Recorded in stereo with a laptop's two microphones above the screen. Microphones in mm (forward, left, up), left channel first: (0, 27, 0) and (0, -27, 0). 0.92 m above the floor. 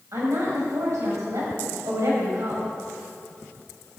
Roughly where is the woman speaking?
Right.